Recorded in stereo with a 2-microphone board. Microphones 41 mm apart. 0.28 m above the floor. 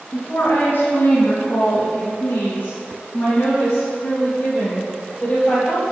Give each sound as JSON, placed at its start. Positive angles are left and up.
{"t": 0.1, "sound": "a woman speaking", "side_deg": 55, "distance_m": 1.9}